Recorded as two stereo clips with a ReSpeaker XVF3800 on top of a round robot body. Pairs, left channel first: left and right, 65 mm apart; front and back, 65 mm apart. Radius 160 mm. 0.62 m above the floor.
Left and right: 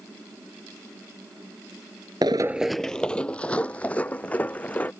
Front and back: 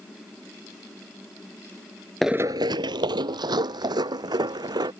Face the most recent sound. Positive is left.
turn(degrees=160)